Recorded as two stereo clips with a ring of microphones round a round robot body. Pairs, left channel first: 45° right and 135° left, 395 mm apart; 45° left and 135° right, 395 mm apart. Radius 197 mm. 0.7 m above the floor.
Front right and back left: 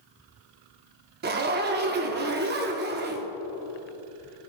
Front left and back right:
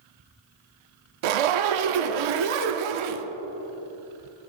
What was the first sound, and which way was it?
A zipper, 160° right.